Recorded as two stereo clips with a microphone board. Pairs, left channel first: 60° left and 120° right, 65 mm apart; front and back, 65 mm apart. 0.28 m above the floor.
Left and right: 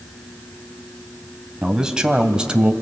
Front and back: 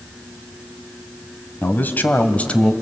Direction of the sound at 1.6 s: 45° right.